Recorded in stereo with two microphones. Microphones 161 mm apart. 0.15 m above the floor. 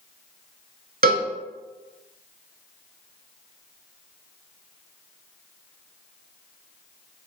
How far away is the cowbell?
About 0.5 m.